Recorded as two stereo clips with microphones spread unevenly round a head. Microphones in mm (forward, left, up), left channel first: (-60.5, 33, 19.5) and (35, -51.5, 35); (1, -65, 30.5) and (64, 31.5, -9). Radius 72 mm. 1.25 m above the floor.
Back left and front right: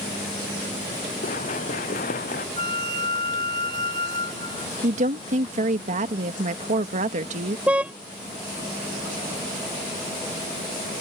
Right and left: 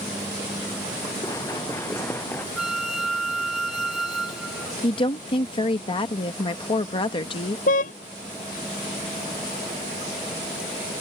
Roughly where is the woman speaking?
Right.